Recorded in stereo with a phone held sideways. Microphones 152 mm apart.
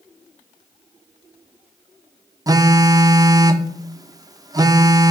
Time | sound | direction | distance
2.5 | a phone buzzing | 25° right (ahead or behind) | 0.5 m